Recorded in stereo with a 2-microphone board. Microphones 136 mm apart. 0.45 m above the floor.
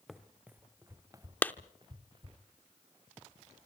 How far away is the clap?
About 0.6 m.